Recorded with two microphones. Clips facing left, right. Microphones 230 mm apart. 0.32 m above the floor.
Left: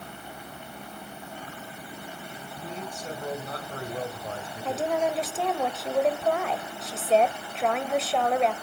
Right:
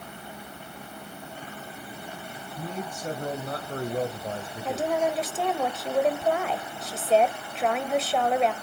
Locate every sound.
2.6 s a man speaking: 50° right (ahead or behind), 1.9 m; by 5.1 s 5° right (ahead or behind), 1.4 m
4.7 s a woman speaking: 5° right (ahead or behind), 1.1 m